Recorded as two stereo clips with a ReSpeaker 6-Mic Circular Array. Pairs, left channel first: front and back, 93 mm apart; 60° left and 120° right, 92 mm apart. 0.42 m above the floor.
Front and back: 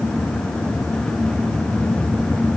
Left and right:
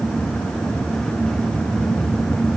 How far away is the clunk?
I don't hear a clunk.